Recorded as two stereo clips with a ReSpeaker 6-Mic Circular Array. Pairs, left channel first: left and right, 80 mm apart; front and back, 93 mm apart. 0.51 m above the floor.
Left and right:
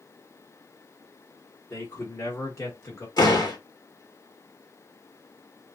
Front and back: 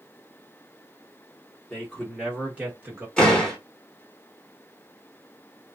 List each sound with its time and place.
1.7 s a man speaking: 65° left, 0.9 m; by 3.1 s 125° left, 1.1 m
3.2 s a door slam: 80° left, 1.1 m